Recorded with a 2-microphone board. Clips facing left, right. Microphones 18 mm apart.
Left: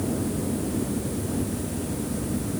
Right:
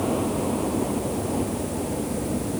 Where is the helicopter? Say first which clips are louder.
Right 3 dB; 60° right (ahead or behind); by 2.6 s 55° right (ahead or behind).